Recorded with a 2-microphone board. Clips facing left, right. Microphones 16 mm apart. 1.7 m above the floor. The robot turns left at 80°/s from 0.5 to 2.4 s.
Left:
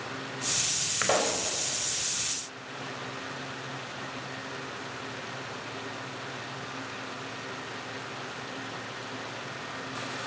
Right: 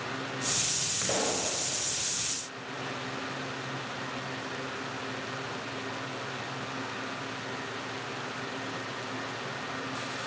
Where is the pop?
85° left, 3.5 m; by 1.5 s 50° left, 3.5 m.